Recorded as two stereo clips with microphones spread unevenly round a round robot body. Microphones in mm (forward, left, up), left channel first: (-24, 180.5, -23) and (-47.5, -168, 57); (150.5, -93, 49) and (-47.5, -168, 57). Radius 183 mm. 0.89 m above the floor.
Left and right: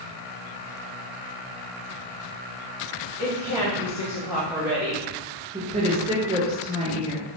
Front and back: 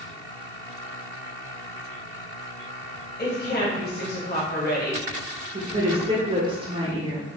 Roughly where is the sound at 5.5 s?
Behind.